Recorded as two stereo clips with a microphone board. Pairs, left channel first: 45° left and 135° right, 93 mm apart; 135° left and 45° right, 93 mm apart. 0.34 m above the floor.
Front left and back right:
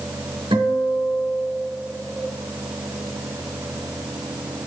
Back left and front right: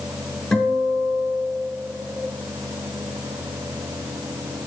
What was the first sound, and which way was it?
A guitar, 140° right.